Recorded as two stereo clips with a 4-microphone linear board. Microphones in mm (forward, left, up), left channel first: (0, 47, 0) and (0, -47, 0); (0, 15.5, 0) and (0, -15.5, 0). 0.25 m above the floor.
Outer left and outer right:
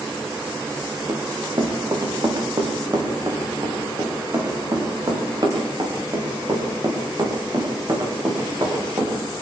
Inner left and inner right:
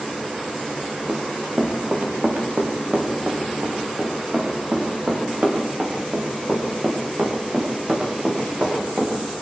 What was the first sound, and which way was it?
Running footsteps, 50° right (ahead or behind).